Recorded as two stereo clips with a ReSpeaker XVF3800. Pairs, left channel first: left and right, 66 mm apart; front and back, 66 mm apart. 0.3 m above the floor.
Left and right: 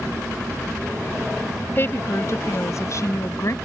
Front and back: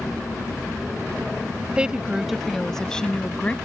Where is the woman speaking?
115° left; by 3.5 s 65° left.